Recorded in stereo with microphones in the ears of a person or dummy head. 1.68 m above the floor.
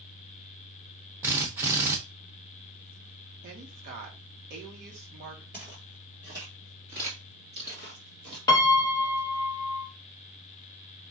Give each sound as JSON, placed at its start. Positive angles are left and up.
{"t": 1.2, "sound": "a drill", "side_deg": -15, "distance_m": 1.0}
{"t": 3.4, "sound": "a woman speaking", "side_deg": -50, "distance_m": 1.5}
{"t": 5.5, "sound": "footsteps", "side_deg": -10, "distance_m": 1.9}
{"t": 8.5, "sound": "a piano", "side_deg": 20, "distance_m": 0.6}